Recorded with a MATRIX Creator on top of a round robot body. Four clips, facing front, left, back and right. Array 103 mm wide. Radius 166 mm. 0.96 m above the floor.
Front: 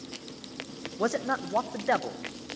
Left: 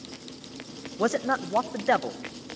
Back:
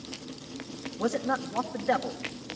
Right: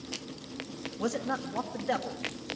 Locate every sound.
1.0 s a man speaking: 70° left, 1.4 m